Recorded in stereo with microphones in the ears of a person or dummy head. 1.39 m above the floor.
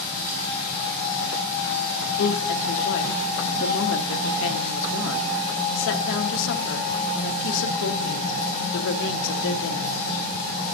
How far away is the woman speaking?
About 1.1 m.